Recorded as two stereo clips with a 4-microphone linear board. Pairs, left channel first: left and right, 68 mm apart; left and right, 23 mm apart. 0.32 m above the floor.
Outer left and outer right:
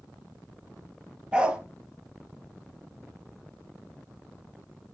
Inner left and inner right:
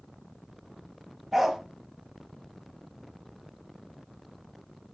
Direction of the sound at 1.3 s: 15° right (ahead or behind).